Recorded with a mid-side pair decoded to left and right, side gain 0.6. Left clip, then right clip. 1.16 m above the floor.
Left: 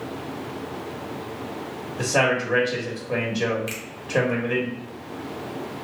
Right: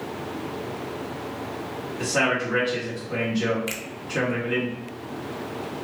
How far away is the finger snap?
About 1.1 m.